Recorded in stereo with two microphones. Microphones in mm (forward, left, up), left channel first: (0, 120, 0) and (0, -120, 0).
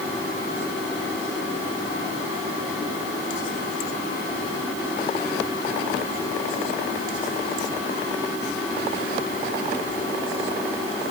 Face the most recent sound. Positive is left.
No sound to turn to.